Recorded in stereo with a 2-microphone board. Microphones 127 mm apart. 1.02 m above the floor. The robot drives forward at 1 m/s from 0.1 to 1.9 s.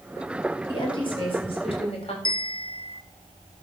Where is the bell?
40° left (ahead or behind), 0.6 m.